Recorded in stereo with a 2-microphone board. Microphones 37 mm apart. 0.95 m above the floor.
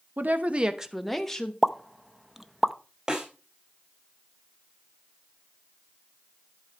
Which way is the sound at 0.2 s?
60° right (ahead or behind).